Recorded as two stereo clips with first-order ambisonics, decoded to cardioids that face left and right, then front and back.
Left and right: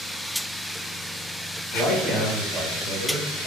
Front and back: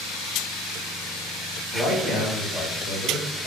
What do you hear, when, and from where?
1.7 s a man speaking: 10° right, 1.0 m; by 3.5 s 35° right, 1.6 m